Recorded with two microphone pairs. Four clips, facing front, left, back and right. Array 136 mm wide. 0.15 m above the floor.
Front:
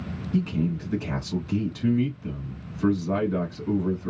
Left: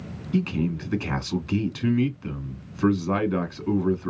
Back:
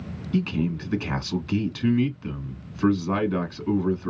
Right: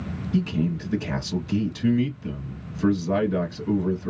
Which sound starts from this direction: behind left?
A man speaking, at 0.3 s.